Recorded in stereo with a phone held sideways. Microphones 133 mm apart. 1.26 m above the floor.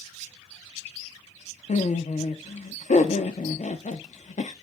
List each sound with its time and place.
1.7 s laughter: 65° left (ahead or behind), 0.7 m